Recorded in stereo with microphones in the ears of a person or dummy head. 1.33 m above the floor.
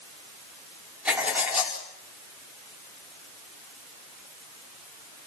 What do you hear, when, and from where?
1.1 s writing: 10° right (ahead or behind), 4.5 m